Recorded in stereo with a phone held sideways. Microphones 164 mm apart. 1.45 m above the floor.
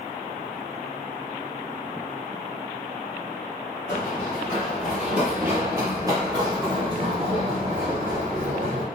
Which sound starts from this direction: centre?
Running footsteps, at 3.9 s.